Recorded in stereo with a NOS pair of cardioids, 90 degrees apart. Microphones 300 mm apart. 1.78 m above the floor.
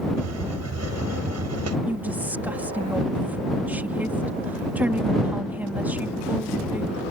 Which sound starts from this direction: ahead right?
A hiss, at 0.2 s.